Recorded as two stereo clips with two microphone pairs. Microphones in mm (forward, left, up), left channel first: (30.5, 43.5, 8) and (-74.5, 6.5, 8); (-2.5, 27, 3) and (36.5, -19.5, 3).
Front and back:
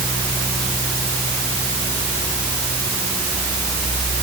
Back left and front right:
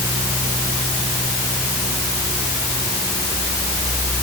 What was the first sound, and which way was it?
Only background noise.